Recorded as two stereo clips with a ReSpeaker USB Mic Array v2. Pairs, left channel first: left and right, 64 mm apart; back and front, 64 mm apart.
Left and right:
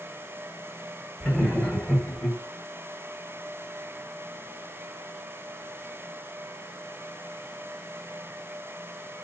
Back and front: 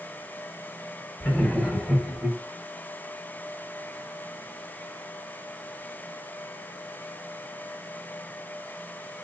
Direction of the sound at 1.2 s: 155° left.